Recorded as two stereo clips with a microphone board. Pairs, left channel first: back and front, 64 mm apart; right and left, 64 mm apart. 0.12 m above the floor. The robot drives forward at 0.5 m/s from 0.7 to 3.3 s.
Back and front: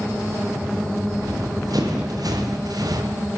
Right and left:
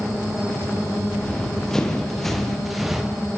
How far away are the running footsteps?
About 6.5 m.